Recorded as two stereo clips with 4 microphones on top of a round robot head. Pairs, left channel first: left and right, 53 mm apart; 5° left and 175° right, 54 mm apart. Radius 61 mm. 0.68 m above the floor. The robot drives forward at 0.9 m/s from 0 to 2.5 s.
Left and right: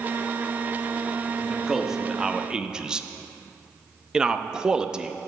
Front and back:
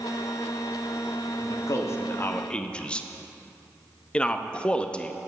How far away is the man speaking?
About 1.3 m.